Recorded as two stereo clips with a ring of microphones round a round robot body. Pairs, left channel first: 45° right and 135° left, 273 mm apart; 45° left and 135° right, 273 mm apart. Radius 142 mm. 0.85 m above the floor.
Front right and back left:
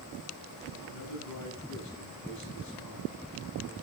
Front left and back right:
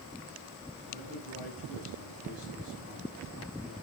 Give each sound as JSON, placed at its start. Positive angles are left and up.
{"t": 0.9, "sound": "a man speaking", "azimuth_deg": -70, "distance_m": 8.0}